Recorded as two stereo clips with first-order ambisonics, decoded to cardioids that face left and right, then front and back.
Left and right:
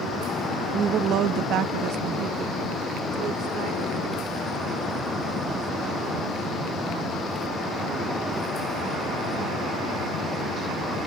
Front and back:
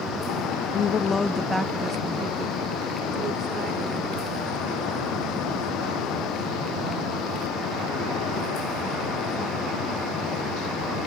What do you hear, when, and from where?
0.7 s a woman speaking: 40° right; by 7.2 s 145° right